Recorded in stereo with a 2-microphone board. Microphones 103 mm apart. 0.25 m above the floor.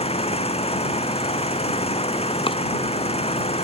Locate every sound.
0.0 s an engine running: 85° left
2.5 s chopping: 60° left (ahead or behind)